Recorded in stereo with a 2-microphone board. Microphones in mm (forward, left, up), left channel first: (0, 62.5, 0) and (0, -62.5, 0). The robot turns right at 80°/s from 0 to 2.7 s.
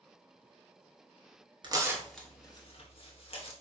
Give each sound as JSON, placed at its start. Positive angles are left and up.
{"t": 1.6, "sound": "tearing paper", "side_deg": -35, "distance_m": 0.8}